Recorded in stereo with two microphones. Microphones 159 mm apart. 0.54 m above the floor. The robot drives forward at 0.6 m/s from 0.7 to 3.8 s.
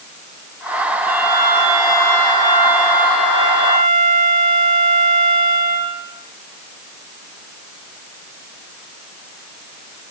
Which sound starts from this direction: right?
A violin, at 1.0 s.